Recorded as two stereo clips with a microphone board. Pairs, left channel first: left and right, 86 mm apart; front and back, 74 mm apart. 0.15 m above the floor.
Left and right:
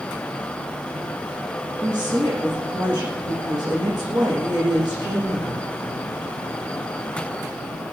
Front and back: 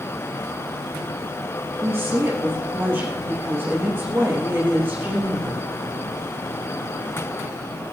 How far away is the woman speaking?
About 9.5 m.